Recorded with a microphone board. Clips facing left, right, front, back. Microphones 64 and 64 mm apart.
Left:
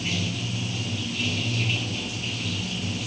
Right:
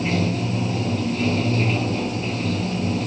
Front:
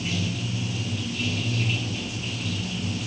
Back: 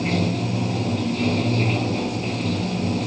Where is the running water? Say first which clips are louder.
Right 8 dB, back 7 dB; 140° right.